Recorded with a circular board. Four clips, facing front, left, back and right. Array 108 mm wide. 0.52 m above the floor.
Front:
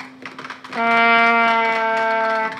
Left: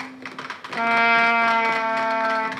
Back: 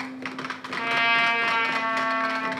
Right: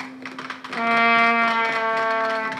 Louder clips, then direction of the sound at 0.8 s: Even, front 10 dB; 10° left.